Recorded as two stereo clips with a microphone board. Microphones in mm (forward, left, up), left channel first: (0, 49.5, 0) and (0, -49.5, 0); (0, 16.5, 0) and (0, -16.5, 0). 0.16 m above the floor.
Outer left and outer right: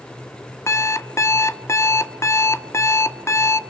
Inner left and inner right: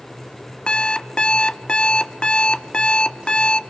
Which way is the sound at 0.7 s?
30° left (ahead or behind).